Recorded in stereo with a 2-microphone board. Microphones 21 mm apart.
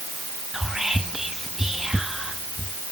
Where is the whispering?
15° right (ahead or behind), 0.7 m.